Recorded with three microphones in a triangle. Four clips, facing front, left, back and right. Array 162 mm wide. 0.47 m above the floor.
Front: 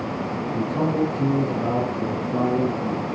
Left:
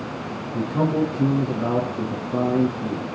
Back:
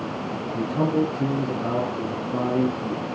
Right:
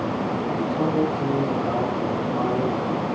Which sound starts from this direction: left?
A man speaking, at 0.5 s.